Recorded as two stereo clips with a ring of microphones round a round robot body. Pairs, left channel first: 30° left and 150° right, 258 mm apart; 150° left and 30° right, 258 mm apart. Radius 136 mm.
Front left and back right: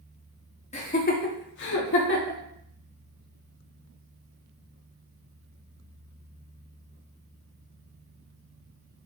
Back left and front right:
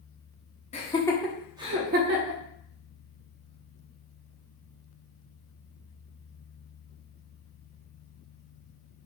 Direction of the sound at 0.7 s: 90° left.